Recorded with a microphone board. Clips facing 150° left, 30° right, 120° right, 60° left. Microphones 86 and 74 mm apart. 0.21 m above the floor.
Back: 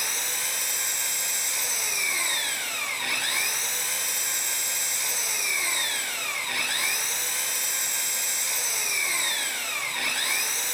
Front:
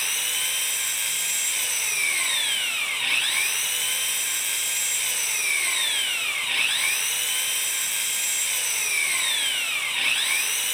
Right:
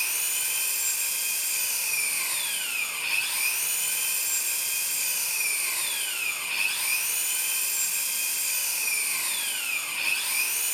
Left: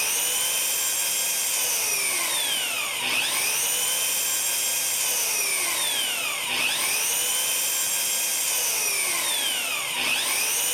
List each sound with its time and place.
0.0 s an engine running: 80° left, 1.2 m